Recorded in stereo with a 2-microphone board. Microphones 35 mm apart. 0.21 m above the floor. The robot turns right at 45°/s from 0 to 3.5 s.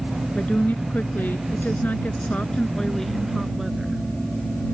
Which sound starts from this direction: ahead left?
A woman speaking, at 0.3 s.